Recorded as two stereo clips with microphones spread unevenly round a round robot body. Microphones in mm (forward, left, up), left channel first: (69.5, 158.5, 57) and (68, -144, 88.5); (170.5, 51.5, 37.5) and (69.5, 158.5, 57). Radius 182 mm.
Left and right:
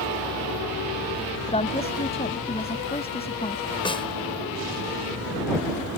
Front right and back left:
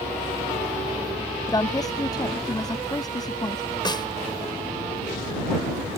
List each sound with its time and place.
1.5 s a woman speaking: 20° left
3.9 s a snare drum: 15° left